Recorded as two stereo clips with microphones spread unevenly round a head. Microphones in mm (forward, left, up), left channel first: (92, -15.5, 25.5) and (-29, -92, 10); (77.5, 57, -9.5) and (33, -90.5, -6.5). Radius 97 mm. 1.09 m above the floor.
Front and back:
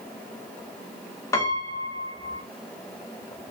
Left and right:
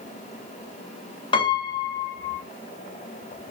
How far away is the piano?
About 0.5 m.